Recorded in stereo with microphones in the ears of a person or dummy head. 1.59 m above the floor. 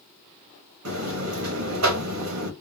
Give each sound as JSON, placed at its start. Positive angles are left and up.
{"t": 0.8, "sound": "a buzzer", "side_deg": -85, "distance_m": 1.3}